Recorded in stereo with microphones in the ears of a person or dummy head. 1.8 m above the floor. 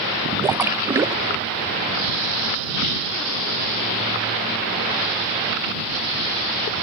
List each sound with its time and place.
0.4 s a splash: 15° right (ahead or behind)